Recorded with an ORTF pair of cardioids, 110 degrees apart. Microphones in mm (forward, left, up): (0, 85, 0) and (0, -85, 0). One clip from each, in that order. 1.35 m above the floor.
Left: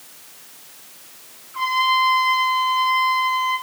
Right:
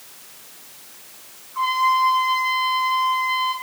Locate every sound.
1.5 s a trumpet: 65° left, 3 m